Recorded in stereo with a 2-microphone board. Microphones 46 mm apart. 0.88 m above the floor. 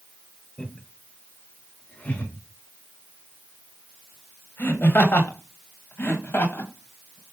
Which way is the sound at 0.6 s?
20° left (ahead or behind).